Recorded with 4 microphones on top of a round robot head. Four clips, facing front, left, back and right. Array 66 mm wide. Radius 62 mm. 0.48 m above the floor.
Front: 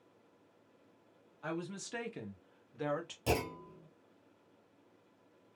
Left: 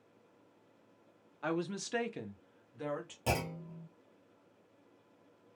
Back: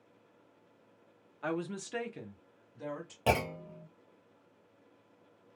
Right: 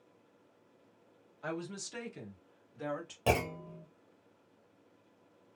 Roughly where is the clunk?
Behind right.